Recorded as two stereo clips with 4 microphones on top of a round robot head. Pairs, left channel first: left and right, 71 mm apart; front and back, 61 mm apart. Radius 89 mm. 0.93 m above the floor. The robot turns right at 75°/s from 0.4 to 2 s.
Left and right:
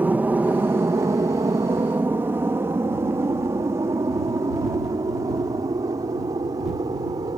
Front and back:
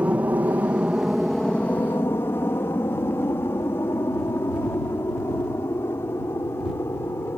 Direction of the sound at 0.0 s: 135° right.